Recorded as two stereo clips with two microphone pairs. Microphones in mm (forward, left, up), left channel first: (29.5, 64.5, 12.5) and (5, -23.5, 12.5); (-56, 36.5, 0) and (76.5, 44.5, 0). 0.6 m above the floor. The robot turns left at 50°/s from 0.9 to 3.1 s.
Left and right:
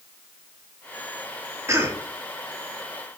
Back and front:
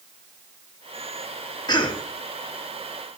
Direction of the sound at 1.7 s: 140° right.